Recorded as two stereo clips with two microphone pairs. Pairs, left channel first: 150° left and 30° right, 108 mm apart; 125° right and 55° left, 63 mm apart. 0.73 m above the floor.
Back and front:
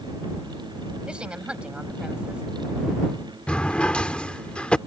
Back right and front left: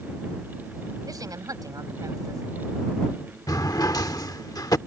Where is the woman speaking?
50° left.